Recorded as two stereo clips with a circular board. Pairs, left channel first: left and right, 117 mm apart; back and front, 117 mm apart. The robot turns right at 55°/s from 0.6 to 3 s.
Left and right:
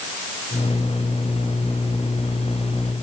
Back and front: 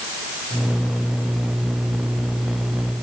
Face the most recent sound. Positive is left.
No sound to turn to.